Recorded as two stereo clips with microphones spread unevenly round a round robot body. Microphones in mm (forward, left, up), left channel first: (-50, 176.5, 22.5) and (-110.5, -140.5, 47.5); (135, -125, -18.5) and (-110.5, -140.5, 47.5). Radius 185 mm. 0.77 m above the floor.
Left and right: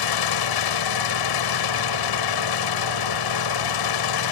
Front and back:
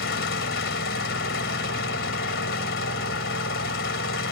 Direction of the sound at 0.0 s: 65° left.